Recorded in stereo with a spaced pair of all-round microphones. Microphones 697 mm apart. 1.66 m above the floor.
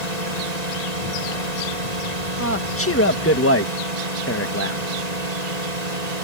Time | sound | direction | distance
0.0 | a drone | 65° right (ahead or behind) | ?
2.4 | a man speaking | 20° left (ahead or behind) | ?